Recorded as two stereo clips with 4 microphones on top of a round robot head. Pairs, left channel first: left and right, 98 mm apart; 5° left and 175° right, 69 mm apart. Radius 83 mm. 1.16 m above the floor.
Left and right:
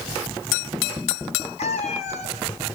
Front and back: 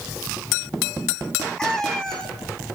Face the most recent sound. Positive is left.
turn(degrees=80)